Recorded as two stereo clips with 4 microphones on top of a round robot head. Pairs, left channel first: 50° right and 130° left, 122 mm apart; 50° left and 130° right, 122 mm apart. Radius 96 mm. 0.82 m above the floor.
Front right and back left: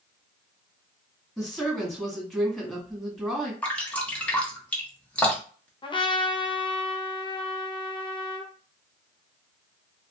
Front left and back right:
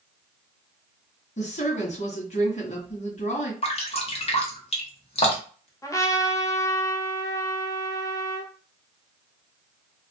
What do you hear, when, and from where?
1.4 s a woman speaking: 35° left, 1.7 m
3.6 s dripping: 30° left, 1.1 m
5.8 s a trumpet: 10° right, 0.8 m